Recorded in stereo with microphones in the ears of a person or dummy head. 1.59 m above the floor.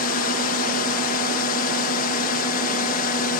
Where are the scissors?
No scissors in this recording.